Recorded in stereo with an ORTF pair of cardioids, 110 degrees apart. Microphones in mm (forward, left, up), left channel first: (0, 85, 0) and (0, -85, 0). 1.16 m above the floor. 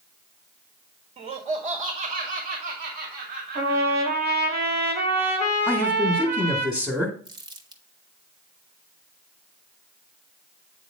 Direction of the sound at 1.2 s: 45° right.